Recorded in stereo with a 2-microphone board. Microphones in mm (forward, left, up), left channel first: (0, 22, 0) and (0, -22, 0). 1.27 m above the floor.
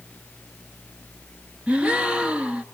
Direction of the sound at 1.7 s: 25° right (ahead or behind).